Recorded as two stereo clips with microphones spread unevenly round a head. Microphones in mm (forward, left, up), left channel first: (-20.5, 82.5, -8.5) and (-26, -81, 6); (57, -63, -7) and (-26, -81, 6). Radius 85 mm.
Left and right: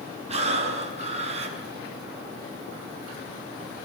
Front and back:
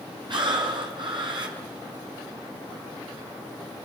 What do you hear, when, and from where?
0.3 s breathing: 145° right, 6.5 m